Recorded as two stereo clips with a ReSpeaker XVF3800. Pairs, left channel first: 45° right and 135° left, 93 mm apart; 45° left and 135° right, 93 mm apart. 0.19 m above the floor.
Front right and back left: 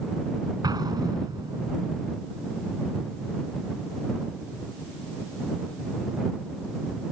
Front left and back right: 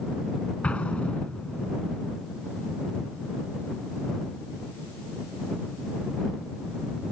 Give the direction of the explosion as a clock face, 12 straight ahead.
8 o'clock.